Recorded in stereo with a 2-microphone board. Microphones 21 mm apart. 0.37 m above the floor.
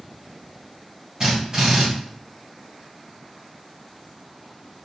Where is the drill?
35° right (ahead or behind), 2 m.